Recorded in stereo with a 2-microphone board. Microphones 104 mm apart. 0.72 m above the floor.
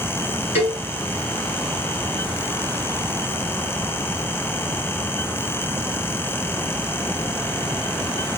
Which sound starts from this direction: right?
A cowbell, at 0.6 s.